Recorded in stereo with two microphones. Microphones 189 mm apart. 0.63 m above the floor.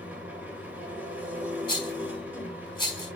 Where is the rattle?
25° left (ahead or behind), 5 m.